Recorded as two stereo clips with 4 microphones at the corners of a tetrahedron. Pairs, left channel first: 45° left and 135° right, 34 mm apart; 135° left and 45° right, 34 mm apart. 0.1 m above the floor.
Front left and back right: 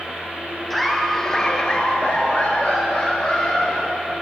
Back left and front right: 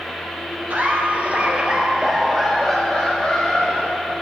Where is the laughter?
45° right, 2 m; by 4.2 s 85° left, 3.5 m.